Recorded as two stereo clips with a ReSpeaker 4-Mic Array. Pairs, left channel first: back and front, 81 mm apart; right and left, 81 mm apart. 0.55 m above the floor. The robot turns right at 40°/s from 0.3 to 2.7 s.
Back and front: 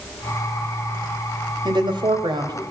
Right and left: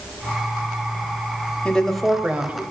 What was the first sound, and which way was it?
A woman speaking, 15° right.